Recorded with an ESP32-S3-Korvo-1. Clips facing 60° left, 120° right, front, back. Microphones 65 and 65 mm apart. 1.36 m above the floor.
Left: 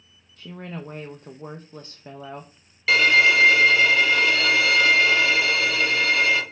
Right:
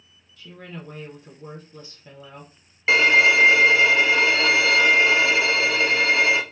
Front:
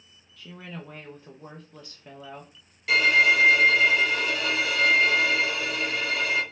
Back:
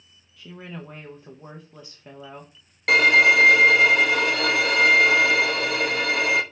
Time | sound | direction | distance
0.4 | a woman speaking | 100° left | 0.5 m
2.9 | a violin | 175° left | 0.5 m